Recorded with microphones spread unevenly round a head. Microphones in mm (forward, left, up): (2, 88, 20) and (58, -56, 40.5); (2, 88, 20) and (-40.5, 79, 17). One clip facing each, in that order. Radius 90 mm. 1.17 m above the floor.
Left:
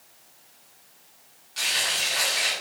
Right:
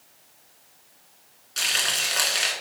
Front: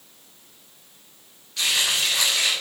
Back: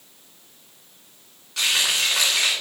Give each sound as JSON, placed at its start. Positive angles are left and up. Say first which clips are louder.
{"t": 1.6, "sound": "frying", "louder": "even, back 1 dB", "azimuth_deg": -115, "distance_m": 2.5}